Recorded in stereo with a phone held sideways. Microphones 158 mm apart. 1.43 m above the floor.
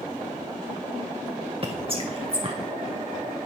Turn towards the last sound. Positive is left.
turn(degrees=-40)  # may be behind; listen again after turning